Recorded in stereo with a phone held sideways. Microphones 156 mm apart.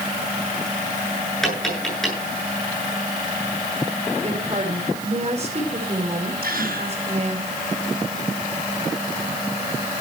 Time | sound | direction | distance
1.4 | tapping | 5° left (ahead or behind) | 9 m
4.2 | a woman speaking | 45° right (ahead or behind) | 4.5 m
6.4 | a gasp | 70° right (ahead or behind) | 7 m